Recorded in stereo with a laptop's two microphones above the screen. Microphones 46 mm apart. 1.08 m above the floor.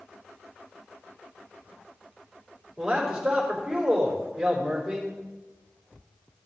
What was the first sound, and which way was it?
A man speaking, 15° right (ahead or behind).